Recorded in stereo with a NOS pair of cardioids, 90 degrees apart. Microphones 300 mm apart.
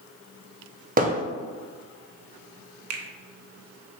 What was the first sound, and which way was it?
Hammering, 30° right.